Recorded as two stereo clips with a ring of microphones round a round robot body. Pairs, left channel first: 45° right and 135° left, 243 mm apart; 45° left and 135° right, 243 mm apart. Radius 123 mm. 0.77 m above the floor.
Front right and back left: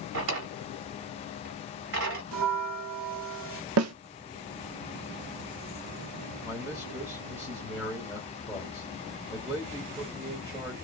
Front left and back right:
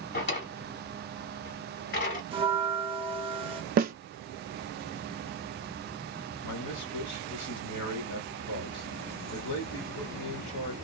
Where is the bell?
160° left, 0.9 m.